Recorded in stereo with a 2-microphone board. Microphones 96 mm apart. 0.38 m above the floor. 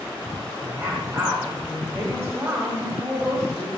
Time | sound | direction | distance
0.6 | a woman speaking | 15° right (ahead or behind) | 1.9 m